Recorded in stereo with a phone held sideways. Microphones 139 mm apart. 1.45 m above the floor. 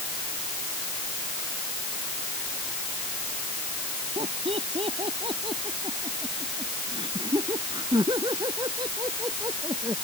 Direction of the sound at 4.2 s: 45° right (ahead or behind).